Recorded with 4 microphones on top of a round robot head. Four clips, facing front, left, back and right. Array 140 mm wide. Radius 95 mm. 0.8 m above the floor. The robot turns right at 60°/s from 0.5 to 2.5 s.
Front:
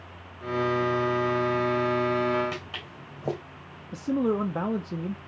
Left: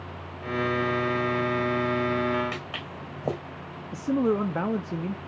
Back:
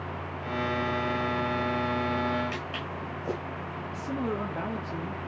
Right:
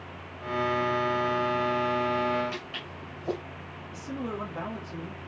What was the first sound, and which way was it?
Footsteps, 60° left.